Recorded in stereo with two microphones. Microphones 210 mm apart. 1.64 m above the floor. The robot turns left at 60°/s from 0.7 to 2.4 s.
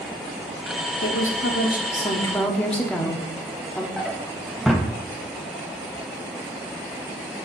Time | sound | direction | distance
1.0 | a woman speaking | 90° left | 1.1 m
4.0 | a drawer | centre (ahead or behind) | 0.9 m